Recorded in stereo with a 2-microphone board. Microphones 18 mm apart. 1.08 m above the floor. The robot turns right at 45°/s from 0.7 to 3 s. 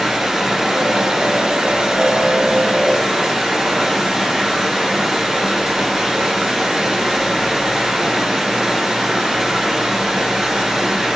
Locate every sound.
0.0 s running water: 145° right, 2 m; by 11.2 s 40° right, 2 m